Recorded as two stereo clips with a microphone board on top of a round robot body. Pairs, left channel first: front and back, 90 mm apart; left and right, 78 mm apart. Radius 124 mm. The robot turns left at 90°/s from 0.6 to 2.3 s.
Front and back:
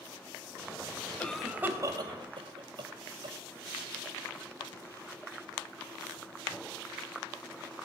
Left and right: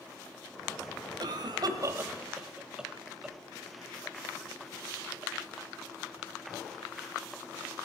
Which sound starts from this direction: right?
A cough, at 1.2 s.